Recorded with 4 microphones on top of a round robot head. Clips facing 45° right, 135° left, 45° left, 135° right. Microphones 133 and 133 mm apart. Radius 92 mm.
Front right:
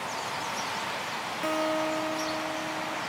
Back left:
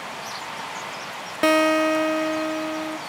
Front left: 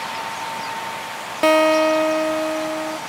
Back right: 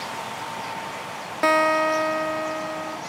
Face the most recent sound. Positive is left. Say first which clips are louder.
# back left 10 dB, front left 6 dB
turn(degrees=115)